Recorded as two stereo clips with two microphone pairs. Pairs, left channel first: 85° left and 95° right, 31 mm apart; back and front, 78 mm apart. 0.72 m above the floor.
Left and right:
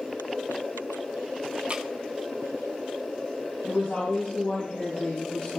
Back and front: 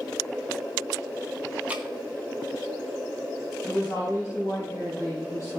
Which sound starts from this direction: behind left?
A woman speaking, at 3.6 s.